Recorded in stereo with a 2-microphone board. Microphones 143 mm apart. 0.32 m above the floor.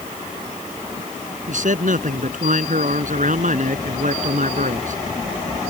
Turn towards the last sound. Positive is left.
turn(degrees=-65)  # may be behind; listen again after turning